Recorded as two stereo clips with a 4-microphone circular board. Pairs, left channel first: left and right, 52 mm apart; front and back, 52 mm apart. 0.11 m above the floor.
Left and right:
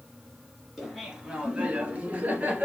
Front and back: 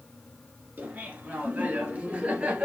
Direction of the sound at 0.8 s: 170° right.